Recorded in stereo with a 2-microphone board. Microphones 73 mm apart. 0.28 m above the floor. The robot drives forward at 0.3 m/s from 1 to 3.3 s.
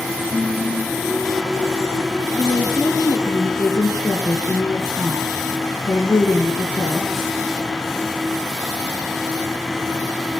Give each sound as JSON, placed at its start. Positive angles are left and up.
{"t": 0.3, "sound": "singing", "side_deg": -80, "distance_m": 5.0}
{"t": 2.3, "sound": "a woman speaking", "side_deg": 65, "distance_m": 3.0}